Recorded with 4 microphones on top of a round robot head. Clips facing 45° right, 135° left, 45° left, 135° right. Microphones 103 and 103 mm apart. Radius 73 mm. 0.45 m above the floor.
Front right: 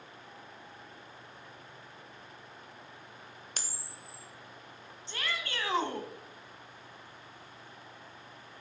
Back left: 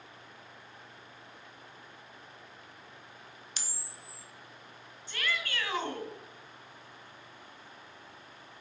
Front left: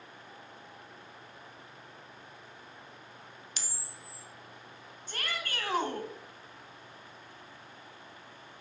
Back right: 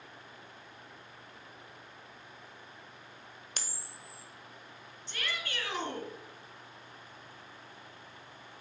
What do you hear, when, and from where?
3.6 s a camera shutter: 90° right, 1.0 m
5.1 s a shout: 10° left, 1.8 m